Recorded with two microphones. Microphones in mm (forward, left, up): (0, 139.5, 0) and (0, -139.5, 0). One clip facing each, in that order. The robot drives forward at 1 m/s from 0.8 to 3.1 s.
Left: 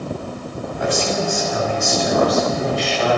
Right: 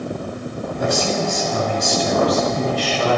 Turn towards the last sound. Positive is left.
turn(degrees=-35)  # may be behind; listen again after turning